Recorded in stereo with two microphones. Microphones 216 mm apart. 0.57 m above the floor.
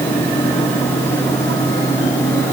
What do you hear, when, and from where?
Only background noise.